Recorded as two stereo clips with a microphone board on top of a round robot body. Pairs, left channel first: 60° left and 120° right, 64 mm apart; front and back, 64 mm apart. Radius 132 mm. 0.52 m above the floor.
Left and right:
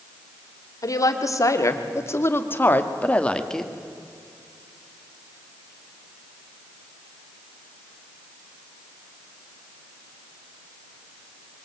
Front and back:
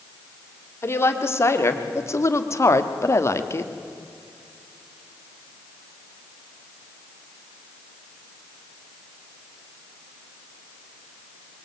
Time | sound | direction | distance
0.8 | a woman speaking | 45° left | 2.5 m